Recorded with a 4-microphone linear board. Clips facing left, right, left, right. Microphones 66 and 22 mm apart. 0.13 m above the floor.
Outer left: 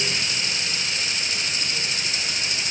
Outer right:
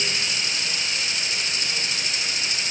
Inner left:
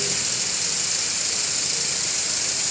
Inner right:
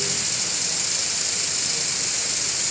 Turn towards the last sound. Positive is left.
No sound to turn to.